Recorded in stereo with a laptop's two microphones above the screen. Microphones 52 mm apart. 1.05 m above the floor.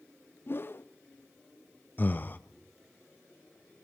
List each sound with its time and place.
0.5 s a whoosh: 45° left (ahead or behind), 0.5 m
2.0 s breathing: 35° left (ahead or behind), 0.6 m